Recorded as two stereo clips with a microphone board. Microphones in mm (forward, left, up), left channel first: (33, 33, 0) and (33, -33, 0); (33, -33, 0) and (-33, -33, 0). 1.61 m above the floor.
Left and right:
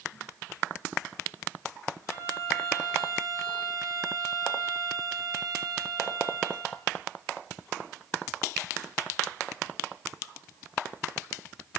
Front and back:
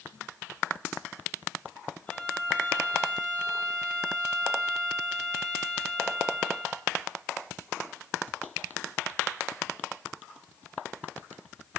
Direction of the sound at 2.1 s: 65° right.